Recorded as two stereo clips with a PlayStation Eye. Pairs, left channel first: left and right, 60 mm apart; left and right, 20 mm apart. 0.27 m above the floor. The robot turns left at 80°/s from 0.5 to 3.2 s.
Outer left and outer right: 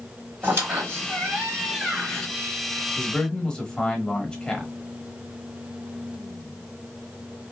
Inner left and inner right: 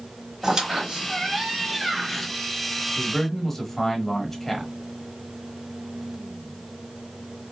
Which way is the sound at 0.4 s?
60° right.